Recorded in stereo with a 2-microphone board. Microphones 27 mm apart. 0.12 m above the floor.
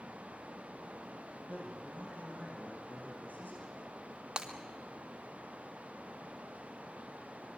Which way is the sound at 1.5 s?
70° left (ahead or behind).